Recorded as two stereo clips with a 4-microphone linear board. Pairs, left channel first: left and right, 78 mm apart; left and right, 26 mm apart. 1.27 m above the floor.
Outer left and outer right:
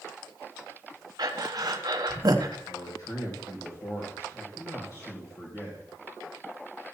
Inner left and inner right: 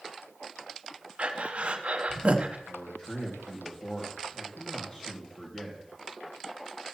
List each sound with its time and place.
1.2 s breathing: 55° right (ahead or behind), 0.8 m
2.7 s a man speaking: 55° left (ahead or behind), 2 m